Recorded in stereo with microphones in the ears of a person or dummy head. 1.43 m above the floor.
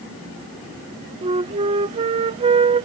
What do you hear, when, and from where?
1.2 s a flute: 30° right (ahead or behind)